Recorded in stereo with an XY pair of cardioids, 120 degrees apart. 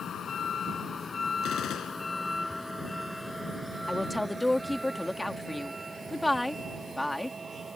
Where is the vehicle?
50° left; by 7.8 s 25° right.